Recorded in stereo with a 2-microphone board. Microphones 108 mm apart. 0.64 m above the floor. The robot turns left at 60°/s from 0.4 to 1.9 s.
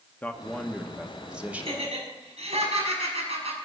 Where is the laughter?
55° right (ahead or behind), 5.5 m; by 3.5 s 70° right (ahead or behind), 5.5 m.